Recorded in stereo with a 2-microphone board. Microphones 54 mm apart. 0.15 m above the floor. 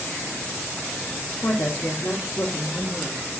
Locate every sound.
1.4 s a woman speaking: 50° left (ahead or behind), 2.5 m; by 3.2 s 55° left (ahead or behind), 2.5 m